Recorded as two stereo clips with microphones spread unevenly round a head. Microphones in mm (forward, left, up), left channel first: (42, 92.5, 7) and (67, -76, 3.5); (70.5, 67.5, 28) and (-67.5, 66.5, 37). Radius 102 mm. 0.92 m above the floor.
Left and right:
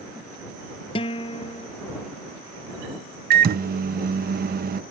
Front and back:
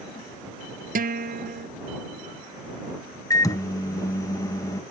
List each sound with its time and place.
0.9 s a guitar: 165° left
3.3 s a microwave: 65° right